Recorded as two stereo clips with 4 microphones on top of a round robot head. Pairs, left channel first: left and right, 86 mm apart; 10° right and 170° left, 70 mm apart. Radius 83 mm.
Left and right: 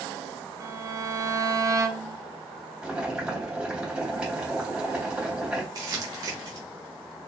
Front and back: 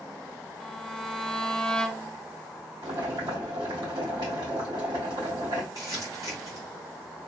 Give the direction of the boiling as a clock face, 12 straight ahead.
6 o'clock.